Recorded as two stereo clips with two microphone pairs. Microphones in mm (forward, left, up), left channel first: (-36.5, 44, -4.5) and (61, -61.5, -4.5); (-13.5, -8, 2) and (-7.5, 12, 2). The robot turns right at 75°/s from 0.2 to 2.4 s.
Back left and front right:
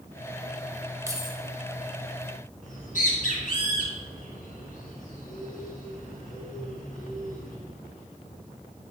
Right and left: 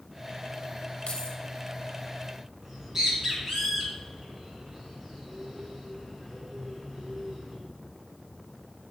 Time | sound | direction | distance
1.1 | keys jangling | 110° right | 1.1 m
2.6 | a bird | 140° left | 3 m